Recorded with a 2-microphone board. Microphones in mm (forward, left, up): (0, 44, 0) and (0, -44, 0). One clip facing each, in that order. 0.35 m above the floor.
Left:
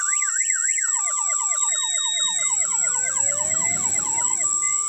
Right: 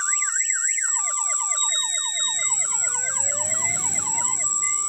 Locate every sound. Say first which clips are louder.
0.0 s an insect: even; 45° right (ahead or behind), 4 m
1.6 s a sliding door: even; 10° left (ahead or behind), 8 m